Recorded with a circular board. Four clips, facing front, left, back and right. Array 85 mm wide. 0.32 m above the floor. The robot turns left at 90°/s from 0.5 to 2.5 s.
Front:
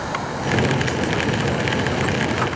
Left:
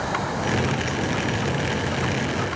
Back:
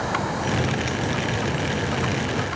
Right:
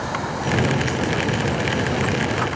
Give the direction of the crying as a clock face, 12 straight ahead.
No crying in this recording.